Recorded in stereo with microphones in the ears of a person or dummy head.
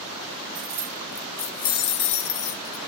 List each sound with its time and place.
0.6 s keys jangling: 30° right (ahead or behind), 0.8 m; by 2.8 s 50° left (ahead or behind), 1.3 m